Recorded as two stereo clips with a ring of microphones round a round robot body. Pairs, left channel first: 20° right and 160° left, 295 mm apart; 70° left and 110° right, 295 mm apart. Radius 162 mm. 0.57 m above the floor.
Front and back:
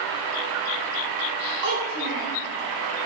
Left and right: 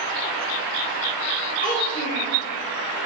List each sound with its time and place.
1.6 s a child speaking: 130° left, 1.9 m